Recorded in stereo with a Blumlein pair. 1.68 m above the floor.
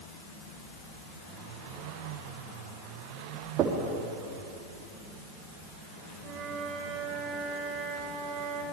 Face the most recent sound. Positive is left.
turn(degrees=-30)